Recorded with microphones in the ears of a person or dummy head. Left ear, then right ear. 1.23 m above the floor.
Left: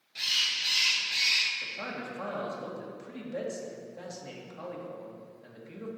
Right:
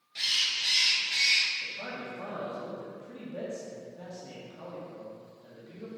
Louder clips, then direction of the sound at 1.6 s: Left 1 dB; 55° left (ahead or behind).